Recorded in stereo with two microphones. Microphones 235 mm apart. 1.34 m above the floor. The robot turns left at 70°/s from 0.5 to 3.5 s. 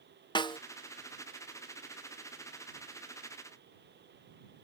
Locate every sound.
0.3 s a snare drum: 20° left (ahead or behind); by 0.6 s 25° left (ahead or behind)